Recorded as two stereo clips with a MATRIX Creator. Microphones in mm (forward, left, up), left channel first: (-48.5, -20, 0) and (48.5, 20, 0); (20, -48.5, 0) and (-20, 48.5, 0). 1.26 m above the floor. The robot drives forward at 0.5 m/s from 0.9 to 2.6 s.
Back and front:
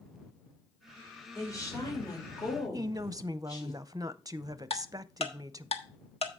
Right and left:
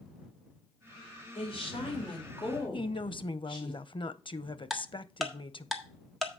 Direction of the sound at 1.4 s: 95° right.